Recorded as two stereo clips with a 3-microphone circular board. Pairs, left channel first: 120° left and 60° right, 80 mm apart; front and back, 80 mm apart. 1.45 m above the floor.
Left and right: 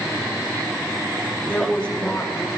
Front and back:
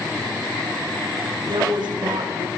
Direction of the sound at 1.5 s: 165° right.